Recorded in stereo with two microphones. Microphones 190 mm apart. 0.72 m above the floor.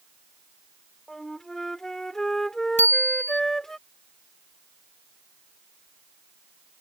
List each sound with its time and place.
1.1 s a flute: centre (ahead or behind)
2.8 s a bicycle bell: 40° right (ahead or behind)